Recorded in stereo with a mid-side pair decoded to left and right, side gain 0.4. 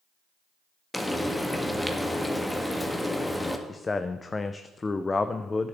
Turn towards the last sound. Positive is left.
turn(degrees=30)